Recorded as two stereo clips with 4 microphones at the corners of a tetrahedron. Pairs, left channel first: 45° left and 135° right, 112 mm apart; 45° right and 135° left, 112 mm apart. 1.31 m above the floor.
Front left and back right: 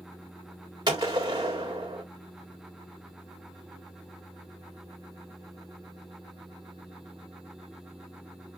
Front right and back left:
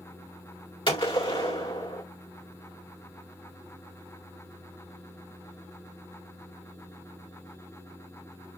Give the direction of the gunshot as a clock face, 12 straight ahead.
3 o'clock.